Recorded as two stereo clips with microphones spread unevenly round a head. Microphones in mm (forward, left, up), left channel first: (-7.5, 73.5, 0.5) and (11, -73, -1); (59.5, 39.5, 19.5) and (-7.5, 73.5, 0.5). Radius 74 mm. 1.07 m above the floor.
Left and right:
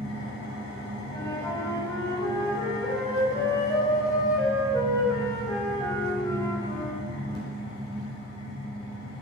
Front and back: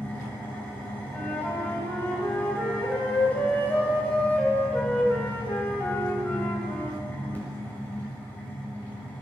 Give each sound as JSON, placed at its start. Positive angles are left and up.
{"t": 0.0, "sound": "an engine running", "azimuth_deg": 35, "distance_m": 2.5}
{"t": 1.1, "sound": "a flute", "azimuth_deg": 30, "distance_m": 1.5}